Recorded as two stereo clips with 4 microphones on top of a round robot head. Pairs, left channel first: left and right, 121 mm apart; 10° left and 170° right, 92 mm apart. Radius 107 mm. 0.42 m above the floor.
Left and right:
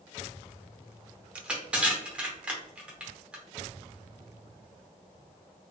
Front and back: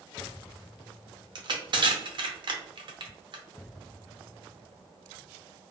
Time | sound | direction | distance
1.4 | crushing | 170° right | 0.7 m